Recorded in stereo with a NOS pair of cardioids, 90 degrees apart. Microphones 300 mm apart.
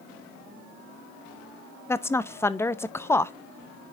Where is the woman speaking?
10° left, 0.5 m.